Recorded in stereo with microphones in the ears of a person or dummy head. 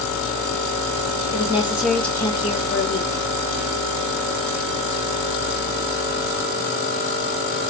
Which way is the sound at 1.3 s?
20° right (ahead or behind).